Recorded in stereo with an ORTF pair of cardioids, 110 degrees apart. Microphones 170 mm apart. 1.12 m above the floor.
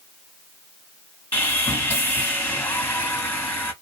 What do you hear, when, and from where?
1.3 s sawing: 10° left, 1.7 m